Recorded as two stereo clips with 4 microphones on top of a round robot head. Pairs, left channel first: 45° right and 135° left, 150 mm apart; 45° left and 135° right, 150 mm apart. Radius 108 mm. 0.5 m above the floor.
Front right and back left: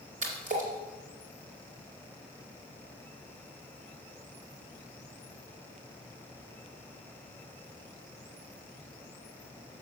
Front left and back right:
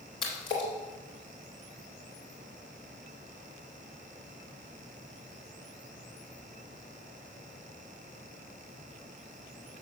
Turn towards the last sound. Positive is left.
turn(degrees=105)